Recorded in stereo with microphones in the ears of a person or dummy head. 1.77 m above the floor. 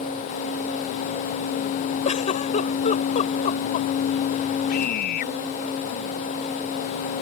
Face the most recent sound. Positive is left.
turn(degrees=60)  # may be behind; listen again after turning